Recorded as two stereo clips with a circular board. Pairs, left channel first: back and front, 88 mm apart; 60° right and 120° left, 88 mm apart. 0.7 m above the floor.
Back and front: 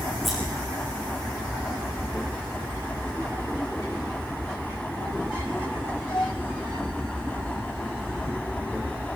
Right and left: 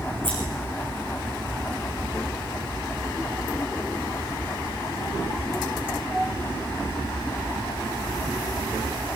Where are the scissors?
90° left, 9.5 m.